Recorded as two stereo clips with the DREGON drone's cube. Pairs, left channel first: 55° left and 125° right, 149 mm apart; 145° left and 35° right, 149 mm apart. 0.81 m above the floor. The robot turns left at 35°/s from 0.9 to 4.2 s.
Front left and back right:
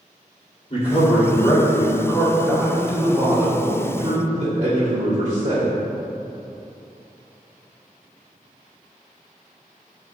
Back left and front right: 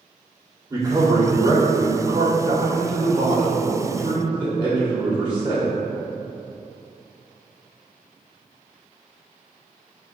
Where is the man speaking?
30° left, 1.7 m; by 5.7 s 85° right, 1.7 m.